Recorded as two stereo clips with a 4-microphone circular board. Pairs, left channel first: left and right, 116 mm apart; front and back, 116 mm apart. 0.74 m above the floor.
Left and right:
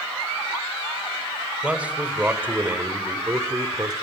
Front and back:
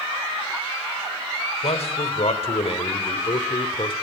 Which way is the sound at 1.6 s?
10° right.